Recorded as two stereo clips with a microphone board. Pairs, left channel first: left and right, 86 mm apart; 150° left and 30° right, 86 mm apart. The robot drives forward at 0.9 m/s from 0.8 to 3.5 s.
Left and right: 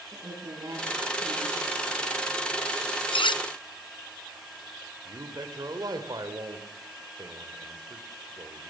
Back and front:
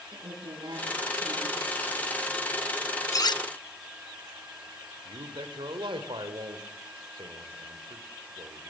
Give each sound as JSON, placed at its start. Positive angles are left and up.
{"t": 0.1, "sound": "a woman speaking", "azimuth_deg": -50, "distance_m": 9.5}
{"t": 3.1, "sound": "cutlery clinking", "azimuth_deg": 95, "distance_m": 0.5}
{"t": 5.0, "sound": "a man speaking", "azimuth_deg": -50, "distance_m": 3.0}